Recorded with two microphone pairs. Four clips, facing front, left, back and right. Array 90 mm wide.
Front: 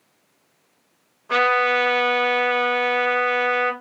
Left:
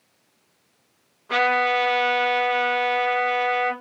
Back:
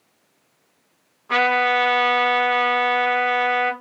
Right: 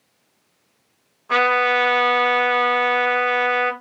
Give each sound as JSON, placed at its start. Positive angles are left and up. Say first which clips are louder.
{"t": 1.3, "sound": "a trumpet", "louder": "right 3 dB, even", "azimuth_deg": -95, "distance_m": 1.6}